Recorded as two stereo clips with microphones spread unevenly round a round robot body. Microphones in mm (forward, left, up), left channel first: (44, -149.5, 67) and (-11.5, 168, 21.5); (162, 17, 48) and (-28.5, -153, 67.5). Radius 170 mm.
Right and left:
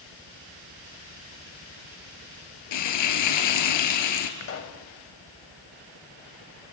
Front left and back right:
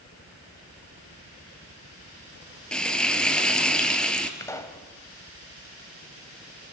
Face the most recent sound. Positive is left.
turn(degrees=-35)